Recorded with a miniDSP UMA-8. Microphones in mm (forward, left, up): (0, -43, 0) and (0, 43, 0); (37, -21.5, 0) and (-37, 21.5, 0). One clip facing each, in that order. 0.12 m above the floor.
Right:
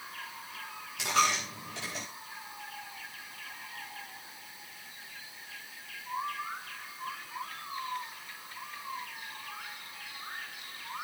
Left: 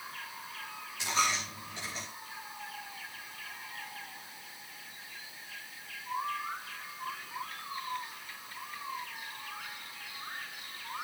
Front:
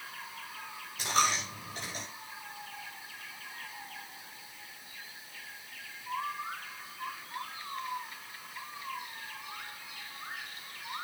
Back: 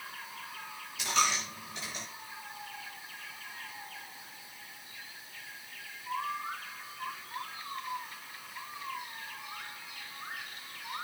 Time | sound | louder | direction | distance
1.0 | a dropped coin | right 3 dB, front 1 dB | 80° right | 7 m